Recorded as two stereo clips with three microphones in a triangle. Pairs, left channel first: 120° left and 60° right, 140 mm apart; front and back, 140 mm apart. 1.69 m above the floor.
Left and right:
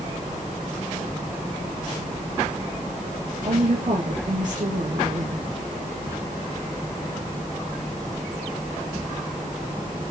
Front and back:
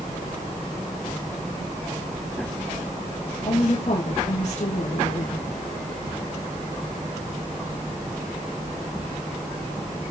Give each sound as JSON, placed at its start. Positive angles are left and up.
{"t": 3.4, "sound": "a woman speaking", "azimuth_deg": -35, "distance_m": 2.0}